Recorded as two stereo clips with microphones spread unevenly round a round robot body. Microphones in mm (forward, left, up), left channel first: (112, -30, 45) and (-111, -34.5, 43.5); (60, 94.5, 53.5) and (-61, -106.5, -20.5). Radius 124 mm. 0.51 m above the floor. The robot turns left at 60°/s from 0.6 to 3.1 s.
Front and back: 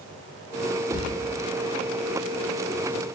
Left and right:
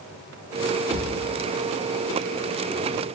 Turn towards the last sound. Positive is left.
turn(degrees=-80)